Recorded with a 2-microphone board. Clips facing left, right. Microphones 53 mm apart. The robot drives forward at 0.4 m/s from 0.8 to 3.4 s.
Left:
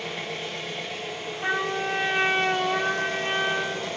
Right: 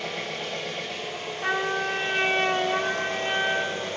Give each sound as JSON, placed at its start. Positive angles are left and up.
{"t": 0.0, "sound": "an engine running", "side_deg": -65, "distance_m": 1.4}
{"t": 1.4, "sound": "a trumpet", "side_deg": 5, "distance_m": 1.6}